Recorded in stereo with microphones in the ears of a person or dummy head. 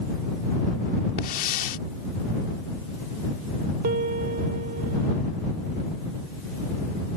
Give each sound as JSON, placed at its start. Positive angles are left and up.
{"t": 1.2, "sound": "a hiss", "side_deg": 50}
{"t": 3.8, "sound": "a piano", "side_deg": -40}